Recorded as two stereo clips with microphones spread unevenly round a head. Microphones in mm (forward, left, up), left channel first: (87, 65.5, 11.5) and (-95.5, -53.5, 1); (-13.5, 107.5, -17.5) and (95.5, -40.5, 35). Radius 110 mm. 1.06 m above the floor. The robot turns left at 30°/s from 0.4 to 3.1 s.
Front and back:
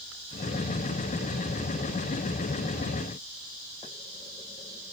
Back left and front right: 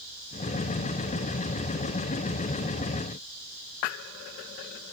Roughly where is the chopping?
No chopping in this recording.